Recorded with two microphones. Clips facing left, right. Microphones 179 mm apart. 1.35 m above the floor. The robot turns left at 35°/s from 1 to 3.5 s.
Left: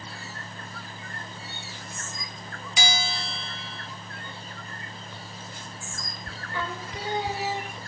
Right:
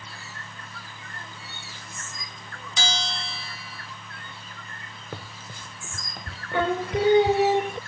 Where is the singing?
65° right (ahead or behind).